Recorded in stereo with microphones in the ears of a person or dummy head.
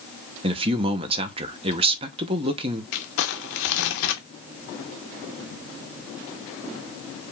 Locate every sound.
0.4 s a man speaking: 20° right (ahead or behind), 0.5 m
2.9 s crumpling: 65° left (ahead or behind), 0.9 m